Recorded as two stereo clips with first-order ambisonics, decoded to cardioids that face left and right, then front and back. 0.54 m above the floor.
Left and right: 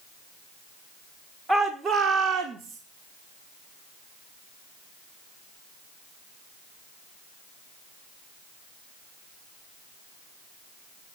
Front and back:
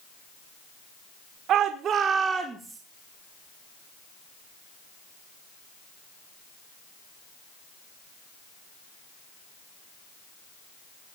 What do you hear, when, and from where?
1.5 s a shout: 155° right, 1.1 m; by 2.8 s 95° right, 1.1 m